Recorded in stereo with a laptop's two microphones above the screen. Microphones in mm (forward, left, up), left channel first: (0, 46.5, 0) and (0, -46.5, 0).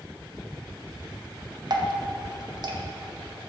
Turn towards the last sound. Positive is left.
turn(degrees=-50)  # may be behind; listen again after turning